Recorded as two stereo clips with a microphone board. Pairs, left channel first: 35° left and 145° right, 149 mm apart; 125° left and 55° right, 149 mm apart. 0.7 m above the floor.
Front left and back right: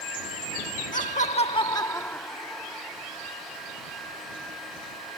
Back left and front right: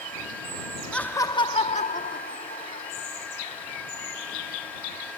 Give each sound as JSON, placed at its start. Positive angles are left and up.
{"t": 0.9, "sound": "laughter", "azimuth_deg": 40}